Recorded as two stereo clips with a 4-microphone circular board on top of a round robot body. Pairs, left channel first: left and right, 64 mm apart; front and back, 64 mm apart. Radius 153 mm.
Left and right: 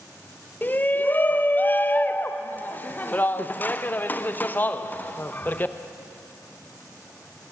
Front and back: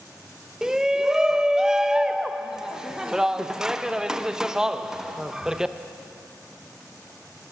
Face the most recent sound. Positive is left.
turn(degrees=110)